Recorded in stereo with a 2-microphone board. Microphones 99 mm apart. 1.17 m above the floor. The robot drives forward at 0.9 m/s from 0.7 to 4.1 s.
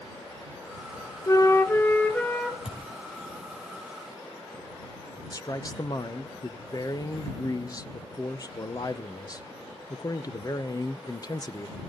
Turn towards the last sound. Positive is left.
turn(degrees=35)  # may be behind; listen again after turning